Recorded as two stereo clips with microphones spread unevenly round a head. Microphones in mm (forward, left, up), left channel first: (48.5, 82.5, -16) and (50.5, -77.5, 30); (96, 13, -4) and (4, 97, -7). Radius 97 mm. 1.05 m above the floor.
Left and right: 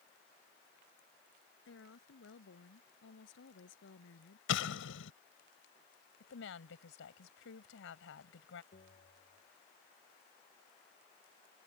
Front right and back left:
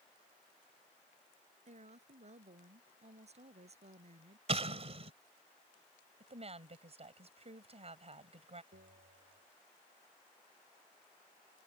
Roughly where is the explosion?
Left.